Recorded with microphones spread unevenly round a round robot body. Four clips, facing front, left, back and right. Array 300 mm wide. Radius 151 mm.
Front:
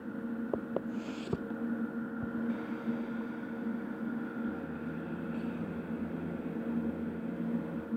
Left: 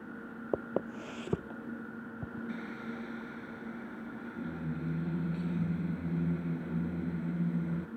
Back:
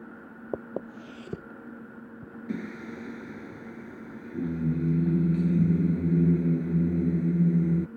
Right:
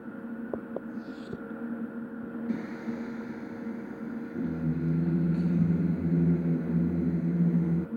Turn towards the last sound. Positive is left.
turn(degrees=-160)